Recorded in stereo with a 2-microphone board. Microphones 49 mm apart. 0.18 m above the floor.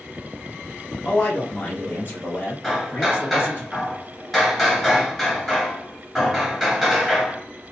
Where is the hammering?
10° left (ahead or behind), 1.6 m.